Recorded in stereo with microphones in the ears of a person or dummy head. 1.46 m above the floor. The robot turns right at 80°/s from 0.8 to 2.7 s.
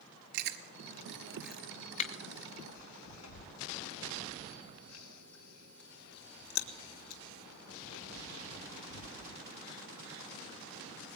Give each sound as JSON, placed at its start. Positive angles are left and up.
{"t": 0.3, "sound": "chewing", "side_deg": -55, "distance_m": 2.5}